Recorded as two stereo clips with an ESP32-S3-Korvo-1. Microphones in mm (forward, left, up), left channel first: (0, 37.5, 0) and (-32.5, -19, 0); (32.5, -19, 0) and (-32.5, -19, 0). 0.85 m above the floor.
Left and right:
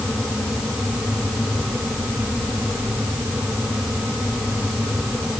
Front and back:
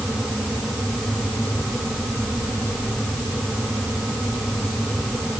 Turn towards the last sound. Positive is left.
No sound to turn to.